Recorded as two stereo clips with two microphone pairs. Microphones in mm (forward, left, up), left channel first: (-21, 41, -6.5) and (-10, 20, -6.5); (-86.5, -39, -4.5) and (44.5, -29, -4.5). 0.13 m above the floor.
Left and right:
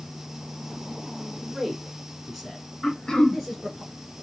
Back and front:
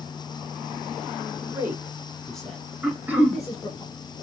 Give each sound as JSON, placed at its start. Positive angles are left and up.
{"t": 1.4, "sound": "a man speaking", "azimuth_deg": 25, "distance_m": 1.2}
{"t": 2.8, "sound": "throat clearing", "azimuth_deg": 80, "distance_m": 0.8}